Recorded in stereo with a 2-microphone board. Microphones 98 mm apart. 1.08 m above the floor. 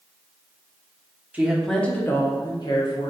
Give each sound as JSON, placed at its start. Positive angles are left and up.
{"t": 1.3, "sound": "a woman speaking", "side_deg": -15, "distance_m": 0.6}